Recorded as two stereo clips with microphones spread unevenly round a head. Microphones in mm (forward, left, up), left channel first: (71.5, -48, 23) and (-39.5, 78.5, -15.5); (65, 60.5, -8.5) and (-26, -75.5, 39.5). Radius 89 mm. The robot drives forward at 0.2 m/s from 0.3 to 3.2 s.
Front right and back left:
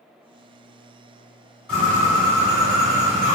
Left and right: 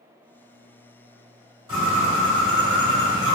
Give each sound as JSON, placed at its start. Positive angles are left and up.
{"t": 1.7, "sound": "a bird", "azimuth_deg": -110, "distance_m": 1.5}